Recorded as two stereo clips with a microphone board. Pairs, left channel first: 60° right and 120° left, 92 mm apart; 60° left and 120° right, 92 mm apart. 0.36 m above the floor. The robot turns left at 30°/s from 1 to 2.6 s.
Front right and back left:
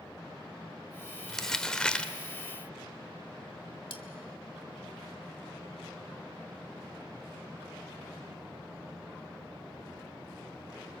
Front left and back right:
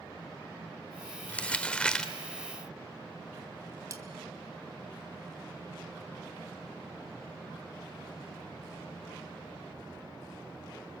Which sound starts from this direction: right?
Cutlery clinking, at 3.9 s.